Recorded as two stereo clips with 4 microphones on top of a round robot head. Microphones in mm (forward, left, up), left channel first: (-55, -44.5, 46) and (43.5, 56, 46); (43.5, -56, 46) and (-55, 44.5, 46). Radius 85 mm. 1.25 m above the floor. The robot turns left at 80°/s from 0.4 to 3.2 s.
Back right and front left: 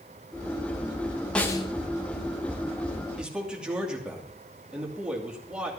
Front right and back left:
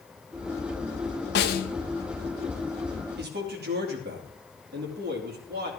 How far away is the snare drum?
About 0.8 m.